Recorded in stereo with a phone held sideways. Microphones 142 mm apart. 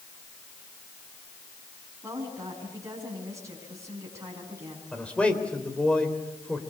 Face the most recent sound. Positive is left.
turn(degrees=10)  # may be behind; listen again after turning